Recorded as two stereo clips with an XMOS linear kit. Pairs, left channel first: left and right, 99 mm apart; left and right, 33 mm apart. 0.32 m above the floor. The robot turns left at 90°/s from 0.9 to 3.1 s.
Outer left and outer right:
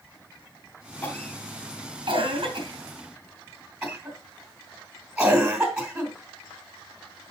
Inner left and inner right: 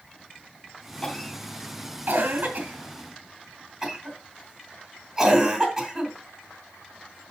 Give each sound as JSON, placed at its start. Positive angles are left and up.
{"t": 1.0, "sound": "a cough", "side_deg": 15, "distance_m": 3.5}